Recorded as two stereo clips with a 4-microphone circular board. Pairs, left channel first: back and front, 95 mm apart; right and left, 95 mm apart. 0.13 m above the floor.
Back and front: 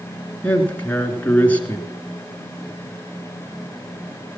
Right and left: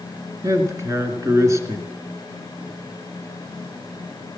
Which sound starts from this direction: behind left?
A man speaking, at 0.4 s.